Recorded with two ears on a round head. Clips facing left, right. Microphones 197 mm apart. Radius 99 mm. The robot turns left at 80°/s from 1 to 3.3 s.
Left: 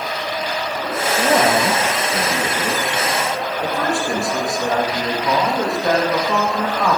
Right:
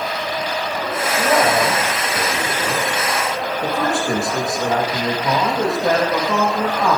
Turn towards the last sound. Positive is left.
turn(degrees=-5)